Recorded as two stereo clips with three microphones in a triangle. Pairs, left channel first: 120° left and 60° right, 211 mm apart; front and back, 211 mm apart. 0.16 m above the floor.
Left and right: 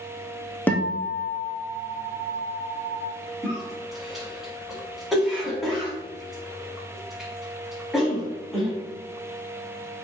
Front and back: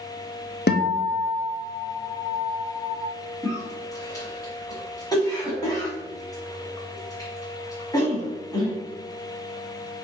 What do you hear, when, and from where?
0.7 s a guitar: 40° left, 0.7 m
3.4 s a cough: 25° left, 1.2 m